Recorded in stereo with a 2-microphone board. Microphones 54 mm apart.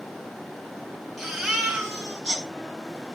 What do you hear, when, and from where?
1.2 s a baby crying: centre (ahead or behind), 5 m